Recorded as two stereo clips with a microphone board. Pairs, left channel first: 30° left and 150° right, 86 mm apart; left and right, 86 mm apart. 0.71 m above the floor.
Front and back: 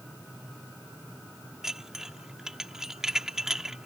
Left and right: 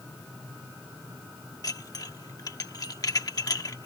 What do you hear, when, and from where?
1.6 s dishes clattering: 130° left